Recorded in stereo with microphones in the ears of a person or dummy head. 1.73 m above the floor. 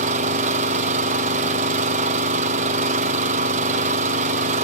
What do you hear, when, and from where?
0.0 s an engine running: 45° right (ahead or behind), 1.0 m